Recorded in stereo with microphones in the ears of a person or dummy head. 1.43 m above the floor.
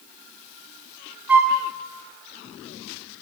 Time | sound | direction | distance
1.3 | a flute | 5° right (ahead or behind) | 1.1 m